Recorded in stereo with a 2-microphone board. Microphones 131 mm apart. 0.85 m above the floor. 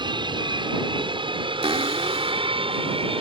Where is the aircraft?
35° right (ahead or behind); by 3.2 s 45° right (ahead or behind).